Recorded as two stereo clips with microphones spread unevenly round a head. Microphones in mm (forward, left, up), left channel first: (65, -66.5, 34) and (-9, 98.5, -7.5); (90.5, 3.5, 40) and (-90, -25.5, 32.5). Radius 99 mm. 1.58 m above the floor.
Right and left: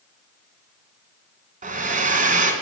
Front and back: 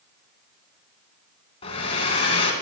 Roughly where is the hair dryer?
Ahead left.